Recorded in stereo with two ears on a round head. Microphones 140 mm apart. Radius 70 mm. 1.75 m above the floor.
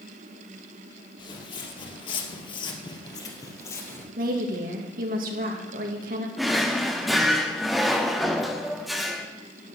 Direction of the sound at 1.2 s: 30° left (ahead or behind).